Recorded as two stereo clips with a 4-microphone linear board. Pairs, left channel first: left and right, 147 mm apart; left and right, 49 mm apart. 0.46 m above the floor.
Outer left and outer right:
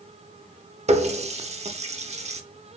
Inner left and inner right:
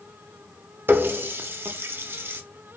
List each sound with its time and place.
0.9 s a running tap: 50° right (ahead or behind), 0.6 m